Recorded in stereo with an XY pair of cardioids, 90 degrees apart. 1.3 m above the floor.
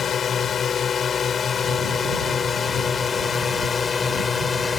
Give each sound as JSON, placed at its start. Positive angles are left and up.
{"t": 0.0, "sound": "a drone", "azimuth_deg": 55}